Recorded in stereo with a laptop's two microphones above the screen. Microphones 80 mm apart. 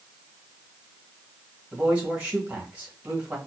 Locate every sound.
1.7 s a man speaking: 20° right (ahead or behind), 1.7 m